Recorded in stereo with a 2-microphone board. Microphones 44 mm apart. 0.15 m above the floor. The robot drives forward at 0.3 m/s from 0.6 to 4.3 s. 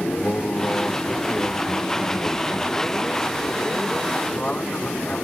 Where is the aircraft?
35° left (ahead or behind); by 5.2 s 30° left (ahead or behind).